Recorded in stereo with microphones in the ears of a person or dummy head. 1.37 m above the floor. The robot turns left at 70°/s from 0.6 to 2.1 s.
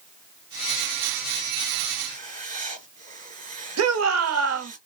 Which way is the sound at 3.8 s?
75° right (ahead or behind).